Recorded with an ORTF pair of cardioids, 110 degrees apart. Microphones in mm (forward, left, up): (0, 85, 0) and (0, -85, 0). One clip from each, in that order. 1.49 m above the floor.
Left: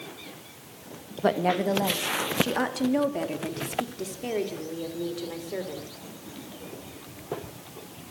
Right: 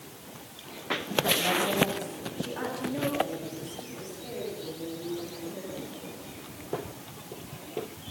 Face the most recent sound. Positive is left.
turn(degrees=80)